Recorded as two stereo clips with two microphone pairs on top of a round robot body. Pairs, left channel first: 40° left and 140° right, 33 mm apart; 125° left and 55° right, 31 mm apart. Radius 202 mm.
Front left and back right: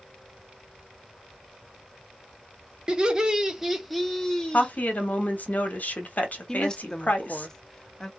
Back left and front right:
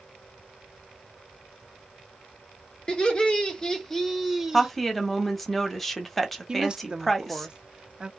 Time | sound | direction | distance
2.9 | laughter | 175° left | 1.2 m
4.5 | a woman speaking | 35° left | 1.1 m
6.5 | a woman speaking | 35° right | 0.8 m